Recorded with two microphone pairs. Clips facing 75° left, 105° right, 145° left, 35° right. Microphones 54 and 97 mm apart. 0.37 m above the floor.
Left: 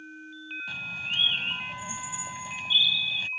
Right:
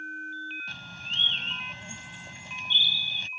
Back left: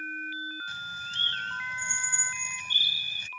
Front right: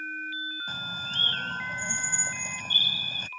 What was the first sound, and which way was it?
A bird, 5° right.